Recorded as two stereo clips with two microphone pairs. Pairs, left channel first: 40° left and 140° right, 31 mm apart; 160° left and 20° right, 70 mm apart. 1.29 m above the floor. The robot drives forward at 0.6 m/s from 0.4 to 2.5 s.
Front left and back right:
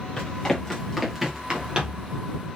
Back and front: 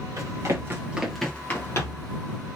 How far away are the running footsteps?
About 1.9 m.